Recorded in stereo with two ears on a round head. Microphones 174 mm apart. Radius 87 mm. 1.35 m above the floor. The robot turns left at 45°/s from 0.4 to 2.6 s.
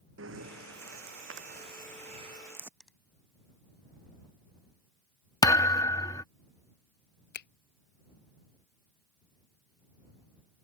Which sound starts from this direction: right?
Breathing, at 0.2 s.